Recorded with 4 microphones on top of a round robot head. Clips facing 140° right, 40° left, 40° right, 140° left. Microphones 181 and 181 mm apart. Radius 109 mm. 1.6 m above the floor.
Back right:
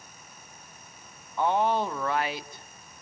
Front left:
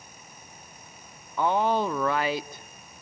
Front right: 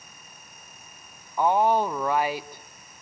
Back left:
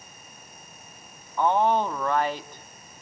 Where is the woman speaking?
45° left, 1.1 m.